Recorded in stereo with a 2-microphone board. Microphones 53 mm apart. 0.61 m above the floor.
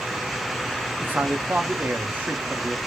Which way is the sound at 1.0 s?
35° right (ahead or behind).